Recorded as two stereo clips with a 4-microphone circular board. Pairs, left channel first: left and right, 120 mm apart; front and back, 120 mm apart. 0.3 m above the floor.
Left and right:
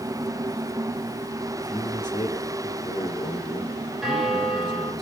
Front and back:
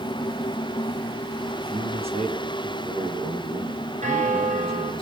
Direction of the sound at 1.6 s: 145° left.